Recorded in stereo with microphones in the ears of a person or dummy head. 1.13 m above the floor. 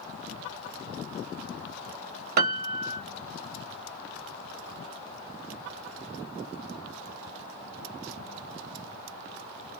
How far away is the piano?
About 0.7 m.